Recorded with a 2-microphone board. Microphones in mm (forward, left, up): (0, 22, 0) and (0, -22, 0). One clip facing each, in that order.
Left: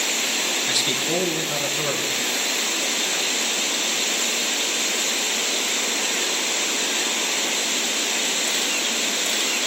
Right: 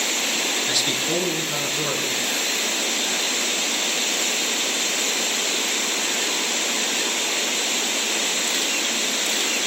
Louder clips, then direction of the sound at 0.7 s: Even; 5° left (ahead or behind).